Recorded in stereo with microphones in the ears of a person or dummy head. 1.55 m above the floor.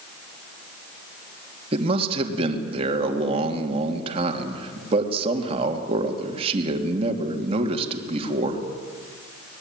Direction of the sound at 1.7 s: 35° right (ahead or behind).